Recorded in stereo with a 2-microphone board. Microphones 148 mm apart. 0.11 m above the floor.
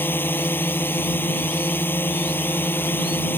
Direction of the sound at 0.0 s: 15° left (ahead or behind).